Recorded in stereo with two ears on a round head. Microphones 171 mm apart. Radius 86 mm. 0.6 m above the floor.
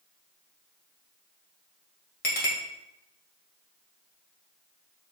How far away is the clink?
About 2.0 m.